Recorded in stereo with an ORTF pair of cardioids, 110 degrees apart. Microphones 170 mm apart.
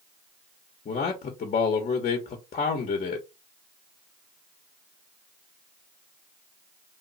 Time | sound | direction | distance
0.8 | a man speaking | 45° left | 1.2 m